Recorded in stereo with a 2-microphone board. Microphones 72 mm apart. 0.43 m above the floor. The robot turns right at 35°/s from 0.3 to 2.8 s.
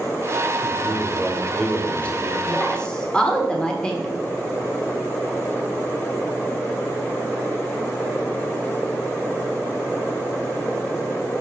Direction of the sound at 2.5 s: 15° left (ahead or behind).